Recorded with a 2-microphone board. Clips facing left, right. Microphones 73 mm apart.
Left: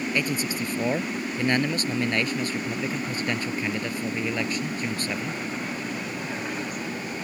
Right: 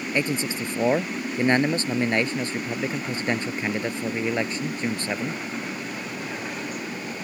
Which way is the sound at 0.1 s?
25° right (ahead or behind).